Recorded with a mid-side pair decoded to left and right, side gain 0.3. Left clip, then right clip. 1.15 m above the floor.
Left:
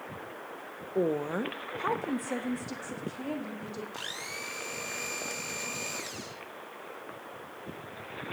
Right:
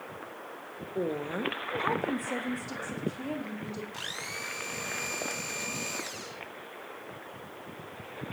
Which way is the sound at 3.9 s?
10° right.